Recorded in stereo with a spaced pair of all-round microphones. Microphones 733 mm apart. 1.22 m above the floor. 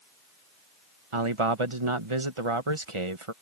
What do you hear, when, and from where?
1.1 s a man speaking: 40° right (ahead or behind)